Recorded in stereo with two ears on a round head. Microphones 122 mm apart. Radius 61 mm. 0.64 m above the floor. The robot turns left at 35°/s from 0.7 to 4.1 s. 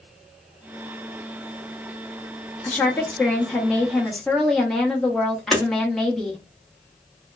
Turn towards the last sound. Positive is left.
turn(degrees=5)  # may be behind; listen again after turning